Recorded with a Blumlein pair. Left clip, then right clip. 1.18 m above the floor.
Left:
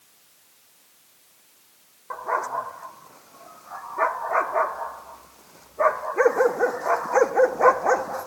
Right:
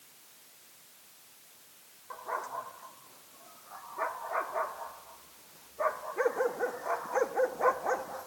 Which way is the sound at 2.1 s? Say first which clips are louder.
Left 11 dB; 60° left.